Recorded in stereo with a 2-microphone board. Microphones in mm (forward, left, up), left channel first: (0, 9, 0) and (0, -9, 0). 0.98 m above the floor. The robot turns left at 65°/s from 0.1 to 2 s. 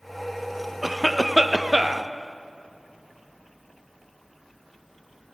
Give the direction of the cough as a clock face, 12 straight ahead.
12 o'clock.